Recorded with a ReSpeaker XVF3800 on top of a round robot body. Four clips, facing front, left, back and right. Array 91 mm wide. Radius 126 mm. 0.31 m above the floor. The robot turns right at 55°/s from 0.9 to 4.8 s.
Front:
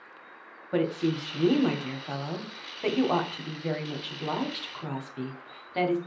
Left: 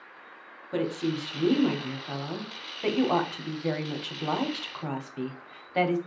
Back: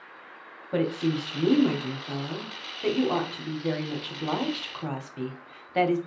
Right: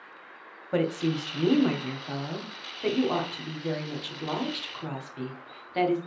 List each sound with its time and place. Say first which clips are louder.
0.7 s a woman speaking: right 2 dB, back 1 dB; 75° right, 1.0 m; by 6.0 s 140° left, 1.0 m